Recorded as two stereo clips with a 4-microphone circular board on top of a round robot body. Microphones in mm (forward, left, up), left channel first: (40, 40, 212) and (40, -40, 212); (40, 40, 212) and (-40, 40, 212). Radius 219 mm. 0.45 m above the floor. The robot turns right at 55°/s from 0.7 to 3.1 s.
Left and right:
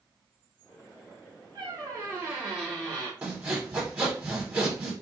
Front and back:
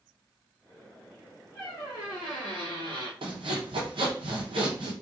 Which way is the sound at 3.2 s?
165° right.